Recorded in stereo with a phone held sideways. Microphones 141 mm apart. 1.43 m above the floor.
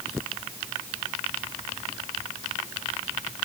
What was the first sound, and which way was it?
Only background noise.